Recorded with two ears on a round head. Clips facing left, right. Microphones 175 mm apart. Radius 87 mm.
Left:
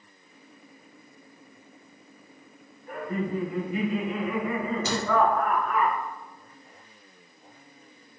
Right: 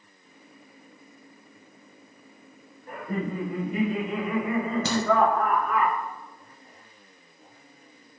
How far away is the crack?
About 1.6 m.